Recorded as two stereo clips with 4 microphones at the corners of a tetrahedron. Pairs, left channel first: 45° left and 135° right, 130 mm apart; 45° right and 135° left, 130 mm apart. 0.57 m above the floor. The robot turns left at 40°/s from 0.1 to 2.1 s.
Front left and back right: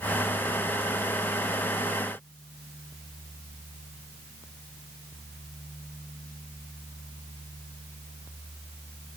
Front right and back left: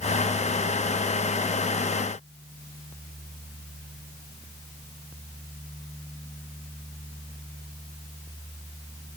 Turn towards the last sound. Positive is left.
No sound to turn to.